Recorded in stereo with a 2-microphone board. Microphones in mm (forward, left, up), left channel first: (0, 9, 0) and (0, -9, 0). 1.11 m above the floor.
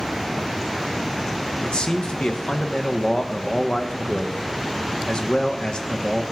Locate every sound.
1.6 s a man speaking: 65° left (ahead or behind), 1.0 m